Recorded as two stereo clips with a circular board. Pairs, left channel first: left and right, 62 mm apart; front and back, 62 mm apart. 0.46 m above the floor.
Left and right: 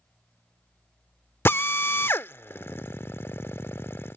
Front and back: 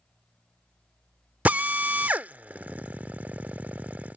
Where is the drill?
125° left.